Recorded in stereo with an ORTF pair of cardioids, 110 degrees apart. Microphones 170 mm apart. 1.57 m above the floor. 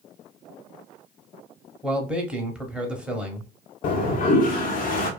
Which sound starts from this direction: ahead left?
A toilet flushing, at 3.8 s.